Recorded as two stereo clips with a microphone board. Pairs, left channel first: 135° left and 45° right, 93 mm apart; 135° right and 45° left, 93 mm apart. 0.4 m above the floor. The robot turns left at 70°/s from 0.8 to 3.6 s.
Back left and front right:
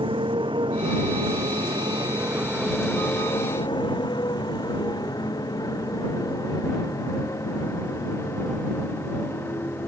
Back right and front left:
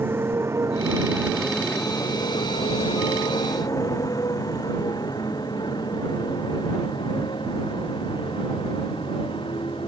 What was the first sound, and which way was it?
A motorcycle, 20° right.